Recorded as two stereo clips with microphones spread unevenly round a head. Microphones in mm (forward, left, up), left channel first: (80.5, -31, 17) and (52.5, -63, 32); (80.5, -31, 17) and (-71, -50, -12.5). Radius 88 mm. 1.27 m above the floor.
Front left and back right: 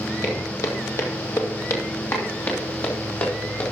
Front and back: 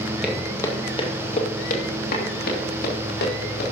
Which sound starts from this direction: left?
Footsteps, at 0.2 s.